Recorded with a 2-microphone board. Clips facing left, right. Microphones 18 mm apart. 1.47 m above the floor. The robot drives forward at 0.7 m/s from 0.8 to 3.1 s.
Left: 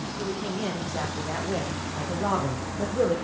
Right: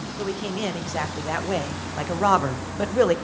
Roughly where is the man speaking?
Right.